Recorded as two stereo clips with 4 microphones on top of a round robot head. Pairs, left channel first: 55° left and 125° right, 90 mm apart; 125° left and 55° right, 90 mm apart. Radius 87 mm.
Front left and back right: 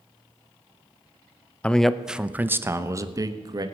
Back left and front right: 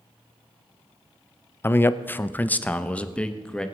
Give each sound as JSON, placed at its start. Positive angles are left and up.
{"t": 1.6, "sound": "a man speaking", "azimuth_deg": 115, "distance_m": 0.7}